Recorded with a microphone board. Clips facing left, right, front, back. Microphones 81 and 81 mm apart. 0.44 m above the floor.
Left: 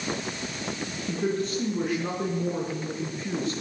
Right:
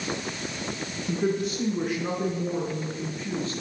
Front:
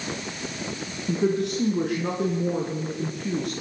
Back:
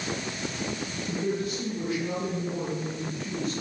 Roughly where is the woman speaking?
Ahead.